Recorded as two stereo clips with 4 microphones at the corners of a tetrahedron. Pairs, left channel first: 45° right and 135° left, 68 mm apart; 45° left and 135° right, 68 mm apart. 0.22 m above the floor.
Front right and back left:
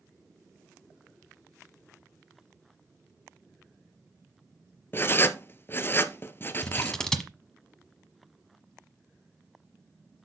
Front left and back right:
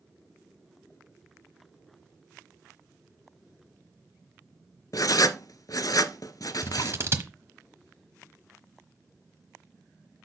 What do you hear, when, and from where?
4.9 s writing: 10° left, 0.6 m
6.6 s scissors: 120° right, 1.2 m